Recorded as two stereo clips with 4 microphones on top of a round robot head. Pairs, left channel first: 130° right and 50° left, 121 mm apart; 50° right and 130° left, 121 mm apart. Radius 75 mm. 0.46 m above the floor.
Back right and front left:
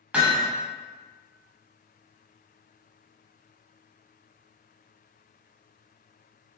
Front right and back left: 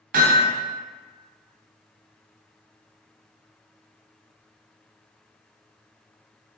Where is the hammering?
130° left, 1.0 m.